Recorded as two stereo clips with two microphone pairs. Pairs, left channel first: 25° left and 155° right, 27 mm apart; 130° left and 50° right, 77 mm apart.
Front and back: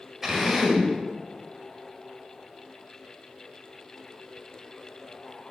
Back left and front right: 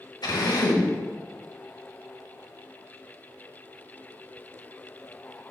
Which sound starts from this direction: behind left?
A drill, at 0.2 s.